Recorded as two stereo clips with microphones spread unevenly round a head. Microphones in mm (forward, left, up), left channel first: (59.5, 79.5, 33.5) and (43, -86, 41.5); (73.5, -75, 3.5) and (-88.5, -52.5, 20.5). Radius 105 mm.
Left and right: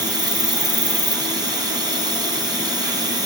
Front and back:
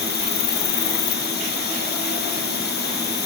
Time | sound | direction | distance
0.0 | an insect | 30° right | 1.4 m